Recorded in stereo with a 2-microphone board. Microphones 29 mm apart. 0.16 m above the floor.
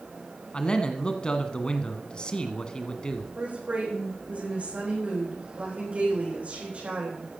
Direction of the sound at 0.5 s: 30° left (ahead or behind).